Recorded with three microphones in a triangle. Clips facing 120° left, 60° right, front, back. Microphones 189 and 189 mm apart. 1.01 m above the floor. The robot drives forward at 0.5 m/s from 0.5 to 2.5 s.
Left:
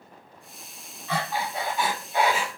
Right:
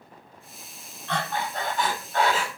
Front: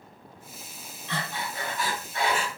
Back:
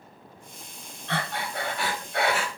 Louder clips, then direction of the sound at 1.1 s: Even, back 3 dB; 155° right.